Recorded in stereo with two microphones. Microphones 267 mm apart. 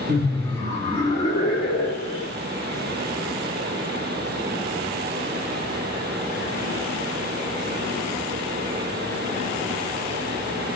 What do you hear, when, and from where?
0.1 s laughter: centre (ahead or behind), 1.7 m; by 2.3 s 40° left (ahead or behind), 1.8 m